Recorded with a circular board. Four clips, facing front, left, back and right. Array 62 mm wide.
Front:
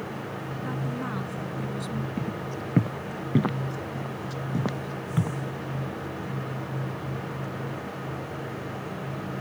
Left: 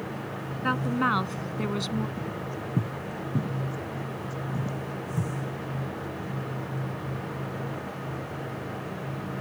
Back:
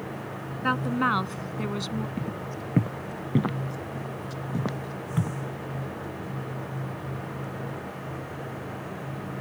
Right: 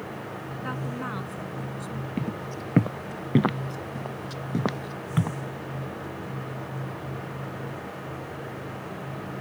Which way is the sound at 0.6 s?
150° left.